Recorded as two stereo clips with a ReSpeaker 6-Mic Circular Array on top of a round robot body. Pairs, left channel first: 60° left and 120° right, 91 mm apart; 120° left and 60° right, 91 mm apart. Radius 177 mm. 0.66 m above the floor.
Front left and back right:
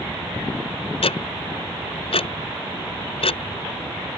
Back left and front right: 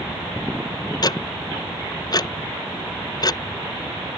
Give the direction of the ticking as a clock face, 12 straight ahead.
10 o'clock.